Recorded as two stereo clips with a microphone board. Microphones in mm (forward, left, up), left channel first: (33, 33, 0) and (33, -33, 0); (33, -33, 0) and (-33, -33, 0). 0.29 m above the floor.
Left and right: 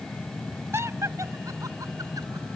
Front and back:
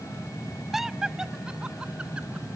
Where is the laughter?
95° right; by 2.5 s 105° right.